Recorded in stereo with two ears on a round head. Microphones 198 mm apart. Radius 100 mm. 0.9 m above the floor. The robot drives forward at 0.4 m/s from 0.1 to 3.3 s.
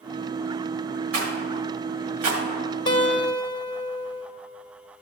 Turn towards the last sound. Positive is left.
turn(degrees=25)  # may be behind; listen again after turning